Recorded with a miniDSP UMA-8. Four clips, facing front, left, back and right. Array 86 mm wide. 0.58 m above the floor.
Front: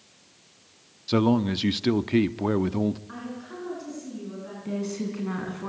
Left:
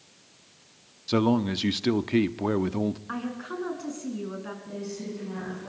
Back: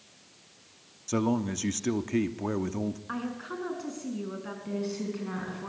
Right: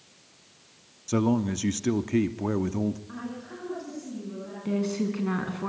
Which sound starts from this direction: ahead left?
A man speaking, at 1.1 s.